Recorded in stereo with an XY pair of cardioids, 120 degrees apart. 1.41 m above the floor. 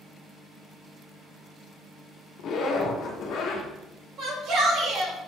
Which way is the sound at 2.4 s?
60° left.